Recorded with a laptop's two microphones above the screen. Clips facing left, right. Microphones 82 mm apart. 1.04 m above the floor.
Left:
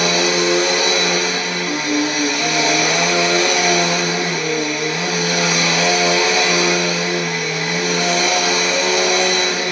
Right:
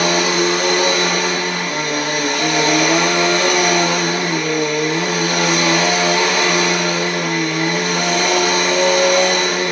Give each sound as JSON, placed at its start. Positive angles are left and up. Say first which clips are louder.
{"t": 0.0, "sound": "a machine running", "louder": "right 1 dB", "side_deg": -50, "distance_m": 1.2}